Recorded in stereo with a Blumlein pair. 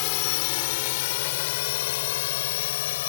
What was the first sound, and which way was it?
A drone, 45° left.